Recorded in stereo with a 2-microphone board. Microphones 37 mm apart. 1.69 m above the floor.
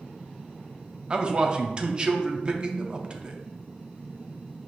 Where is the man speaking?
25° right (ahead or behind), 0.6 m.